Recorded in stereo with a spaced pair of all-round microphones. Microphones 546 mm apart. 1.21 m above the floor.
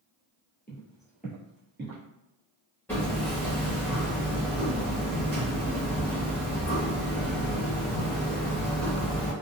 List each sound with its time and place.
0.7 s footsteps: 15° left (ahead or behind), 1.2 m; by 2.0 s 25° right (ahead or behind), 1.3 m
2.9 s hammering: 5° left (ahead or behind), 1.3 m